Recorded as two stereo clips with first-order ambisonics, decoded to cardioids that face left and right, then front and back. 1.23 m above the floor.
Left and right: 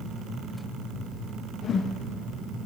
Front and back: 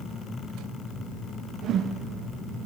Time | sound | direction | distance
1.6 | a whoosh | 140° left | 0.8 m